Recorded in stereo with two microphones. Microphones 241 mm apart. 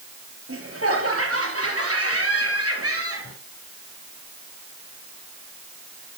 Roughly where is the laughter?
Right.